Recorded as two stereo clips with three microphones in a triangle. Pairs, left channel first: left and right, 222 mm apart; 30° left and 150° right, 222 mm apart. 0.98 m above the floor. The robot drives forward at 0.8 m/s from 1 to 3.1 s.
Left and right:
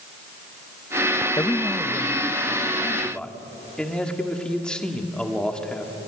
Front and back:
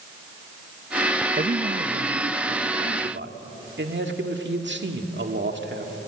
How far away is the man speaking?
About 0.5 m.